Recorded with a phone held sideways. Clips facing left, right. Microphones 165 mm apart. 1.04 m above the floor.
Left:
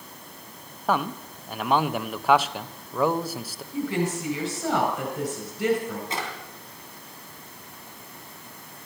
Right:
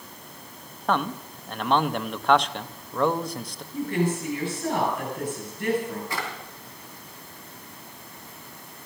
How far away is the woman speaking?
About 5 m.